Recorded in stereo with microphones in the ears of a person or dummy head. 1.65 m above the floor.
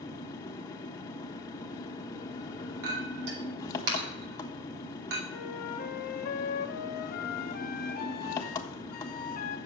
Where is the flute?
55° left (ahead or behind), 0.8 m.